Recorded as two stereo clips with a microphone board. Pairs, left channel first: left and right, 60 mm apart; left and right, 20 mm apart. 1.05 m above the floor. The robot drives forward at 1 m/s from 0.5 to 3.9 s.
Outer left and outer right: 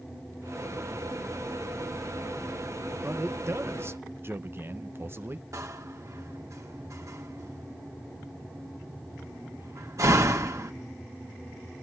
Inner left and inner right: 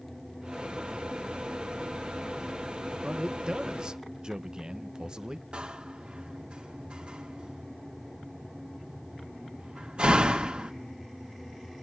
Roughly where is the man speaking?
Right.